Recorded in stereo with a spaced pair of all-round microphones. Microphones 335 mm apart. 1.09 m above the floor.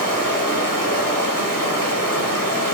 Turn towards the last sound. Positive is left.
turn(degrees=-70)  # may be behind; listen again after turning